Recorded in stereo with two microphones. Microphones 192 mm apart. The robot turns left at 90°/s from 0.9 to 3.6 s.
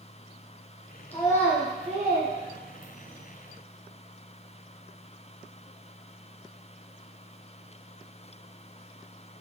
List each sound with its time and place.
1.1 s a child speaking: 30° left (ahead or behind), 0.6 m; by 3.2 s 25° right (ahead or behind), 0.6 m